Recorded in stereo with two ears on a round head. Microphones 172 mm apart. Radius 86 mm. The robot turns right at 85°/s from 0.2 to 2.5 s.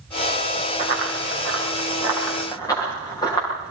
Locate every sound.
0.8 s running footsteps: 40° right (ahead or behind), 7.5 m; by 3.7 s 20° left (ahead or behind), 10.5 m